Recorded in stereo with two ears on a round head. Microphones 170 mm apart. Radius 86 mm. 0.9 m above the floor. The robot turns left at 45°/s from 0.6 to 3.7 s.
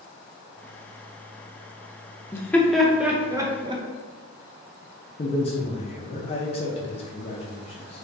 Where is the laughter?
10° left (ahead or behind), 0.5 m; by 3.8 s 20° right (ahead or behind), 0.5 m.